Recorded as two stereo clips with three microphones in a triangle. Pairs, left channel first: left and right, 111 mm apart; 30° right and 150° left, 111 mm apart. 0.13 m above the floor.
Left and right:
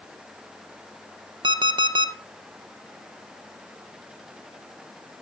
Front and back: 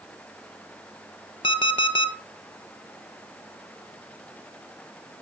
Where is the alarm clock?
60° right, 0.9 m.